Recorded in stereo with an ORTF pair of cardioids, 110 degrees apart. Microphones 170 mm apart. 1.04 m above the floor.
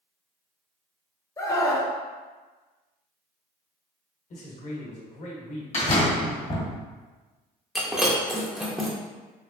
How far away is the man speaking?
About 1.1 m.